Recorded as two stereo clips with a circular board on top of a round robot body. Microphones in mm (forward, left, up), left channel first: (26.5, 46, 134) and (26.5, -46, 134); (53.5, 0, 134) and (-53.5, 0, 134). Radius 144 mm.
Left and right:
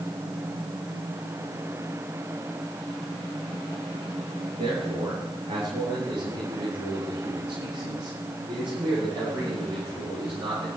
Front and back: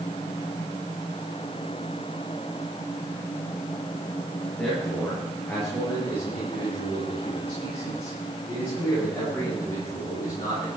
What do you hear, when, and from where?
4.5 s a man speaking: 80° right, 8.5 m; by 10.7 s 70° right, 12 m